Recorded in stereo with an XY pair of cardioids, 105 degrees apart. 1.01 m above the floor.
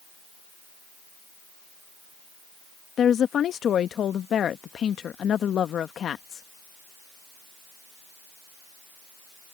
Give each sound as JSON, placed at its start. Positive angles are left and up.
{"t": 3.0, "sound": "a woman speaking", "azimuth_deg": 55}